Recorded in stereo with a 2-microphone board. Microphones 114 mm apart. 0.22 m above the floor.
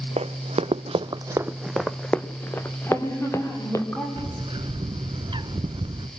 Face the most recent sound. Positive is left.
turn(degrees=-55)  # may be behind; listen again after turning